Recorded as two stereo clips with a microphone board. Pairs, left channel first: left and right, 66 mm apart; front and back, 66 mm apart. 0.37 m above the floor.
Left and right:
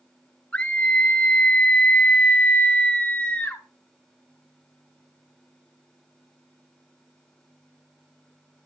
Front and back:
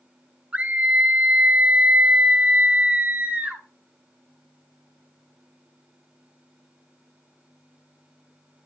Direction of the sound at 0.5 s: 140° left.